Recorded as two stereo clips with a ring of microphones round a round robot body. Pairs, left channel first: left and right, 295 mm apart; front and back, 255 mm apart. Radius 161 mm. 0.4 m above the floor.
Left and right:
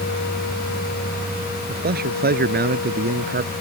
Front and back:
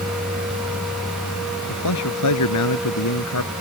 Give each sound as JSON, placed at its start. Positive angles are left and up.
{"t": 1.7, "sound": "a man speaking", "azimuth_deg": -30}